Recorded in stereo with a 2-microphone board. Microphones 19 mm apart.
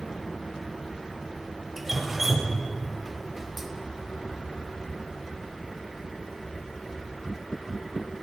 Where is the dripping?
15° right (ahead or behind), 0.6 m.